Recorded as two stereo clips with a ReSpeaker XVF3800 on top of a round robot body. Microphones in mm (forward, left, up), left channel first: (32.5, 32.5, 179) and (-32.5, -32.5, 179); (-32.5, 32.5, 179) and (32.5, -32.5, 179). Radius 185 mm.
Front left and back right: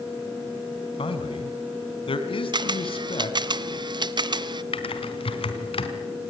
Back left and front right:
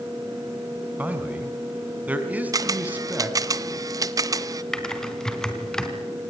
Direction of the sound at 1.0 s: 30° left.